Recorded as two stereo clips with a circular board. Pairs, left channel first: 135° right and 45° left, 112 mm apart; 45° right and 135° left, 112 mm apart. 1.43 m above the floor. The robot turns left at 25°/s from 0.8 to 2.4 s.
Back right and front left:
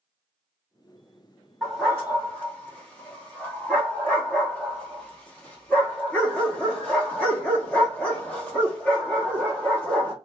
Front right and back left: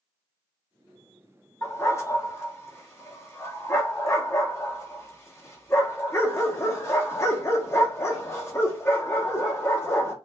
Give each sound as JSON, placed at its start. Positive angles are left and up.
{"t": 1.6, "sound": "a dog barking", "azimuth_deg": -50, "distance_m": 0.9}